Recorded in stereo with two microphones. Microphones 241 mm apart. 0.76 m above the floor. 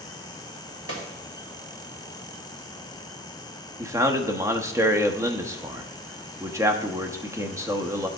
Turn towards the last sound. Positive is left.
turn(degrees=-10)  # may be behind; listen again after turning